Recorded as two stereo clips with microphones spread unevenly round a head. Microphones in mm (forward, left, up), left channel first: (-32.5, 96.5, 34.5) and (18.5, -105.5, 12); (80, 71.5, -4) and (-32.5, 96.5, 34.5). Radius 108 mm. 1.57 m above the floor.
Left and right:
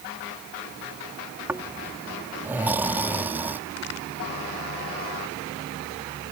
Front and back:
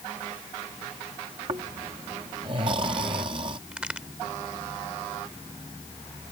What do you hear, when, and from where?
1.5 s snoring: 160° right
3.7 s a crack: 95° left